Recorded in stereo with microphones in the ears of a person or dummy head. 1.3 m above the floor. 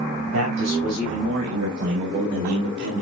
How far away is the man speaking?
About 6.5 m.